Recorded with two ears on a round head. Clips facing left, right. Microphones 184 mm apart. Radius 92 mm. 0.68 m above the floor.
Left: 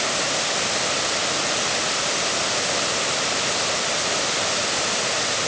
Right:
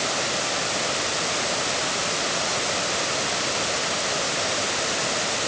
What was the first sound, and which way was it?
Only background noise.